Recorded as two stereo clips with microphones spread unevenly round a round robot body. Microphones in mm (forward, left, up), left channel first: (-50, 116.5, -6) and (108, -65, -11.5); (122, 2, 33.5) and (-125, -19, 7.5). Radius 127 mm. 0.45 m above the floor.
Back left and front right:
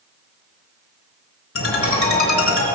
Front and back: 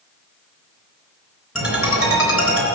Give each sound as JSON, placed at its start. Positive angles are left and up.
{"t": 1.6, "sound": "a ringtone", "azimuth_deg": 95, "distance_m": 3.5}